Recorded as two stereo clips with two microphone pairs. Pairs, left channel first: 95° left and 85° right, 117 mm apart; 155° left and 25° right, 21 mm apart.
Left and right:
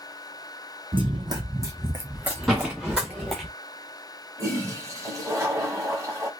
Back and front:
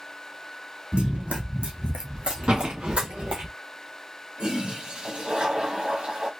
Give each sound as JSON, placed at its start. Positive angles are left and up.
{"t": 0.9, "sound": "running footsteps", "azimuth_deg": -50, "distance_m": 0.8}
{"t": 2.5, "sound": "a door slam", "azimuth_deg": 0, "distance_m": 2.0}
{"t": 4.4, "sound": "a toilet flushing", "azimuth_deg": -35, "distance_m": 1.5}